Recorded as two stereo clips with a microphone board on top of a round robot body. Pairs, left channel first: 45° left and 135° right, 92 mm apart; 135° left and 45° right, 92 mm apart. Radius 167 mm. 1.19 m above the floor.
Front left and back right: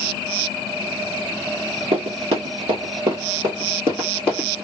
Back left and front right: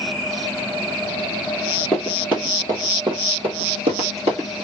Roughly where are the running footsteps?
Behind right.